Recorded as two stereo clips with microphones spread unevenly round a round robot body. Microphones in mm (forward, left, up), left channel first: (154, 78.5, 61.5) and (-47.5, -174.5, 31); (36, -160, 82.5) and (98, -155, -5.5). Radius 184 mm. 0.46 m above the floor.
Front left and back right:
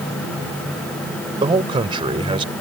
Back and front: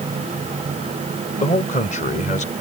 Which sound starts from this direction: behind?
A man speaking, at 1.4 s.